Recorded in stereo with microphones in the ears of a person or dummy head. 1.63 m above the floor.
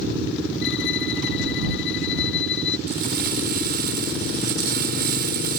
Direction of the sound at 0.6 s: 70° left (ahead or behind).